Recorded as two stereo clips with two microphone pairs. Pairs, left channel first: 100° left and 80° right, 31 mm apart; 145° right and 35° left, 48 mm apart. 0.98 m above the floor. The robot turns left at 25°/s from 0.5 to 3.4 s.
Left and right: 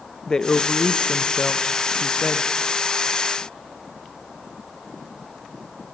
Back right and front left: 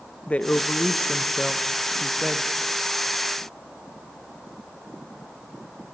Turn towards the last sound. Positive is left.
turn(degrees=85)